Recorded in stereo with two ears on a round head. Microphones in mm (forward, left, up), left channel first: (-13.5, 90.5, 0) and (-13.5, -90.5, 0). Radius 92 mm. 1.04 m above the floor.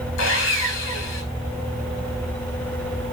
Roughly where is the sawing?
Left.